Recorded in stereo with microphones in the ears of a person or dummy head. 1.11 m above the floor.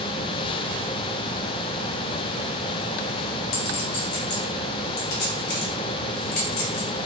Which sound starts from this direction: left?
A clink, at 3.5 s.